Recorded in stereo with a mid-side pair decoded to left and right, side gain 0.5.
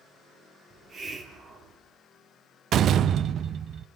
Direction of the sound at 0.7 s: 45° right.